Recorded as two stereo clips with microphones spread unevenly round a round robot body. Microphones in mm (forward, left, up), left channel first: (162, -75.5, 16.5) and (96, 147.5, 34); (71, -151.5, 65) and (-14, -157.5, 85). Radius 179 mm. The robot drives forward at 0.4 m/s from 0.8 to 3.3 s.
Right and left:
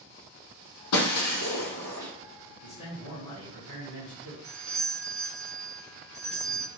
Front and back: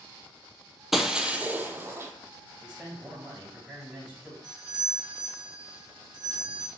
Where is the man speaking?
105° right, 2.5 m; by 4.3 s 110° right, 2.5 m.